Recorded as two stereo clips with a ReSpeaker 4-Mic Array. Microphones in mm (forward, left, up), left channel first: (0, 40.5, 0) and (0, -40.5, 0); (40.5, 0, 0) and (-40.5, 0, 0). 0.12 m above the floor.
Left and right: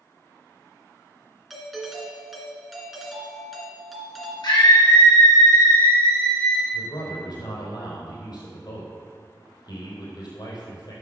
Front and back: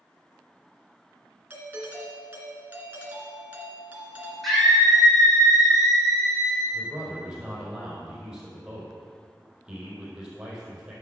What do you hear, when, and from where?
1.5 s a doorbell: straight behind, 1.9 m
4.4 s a scream: 90° left, 4.5 m
6.7 s a man speaking: 100° left, 4.5 m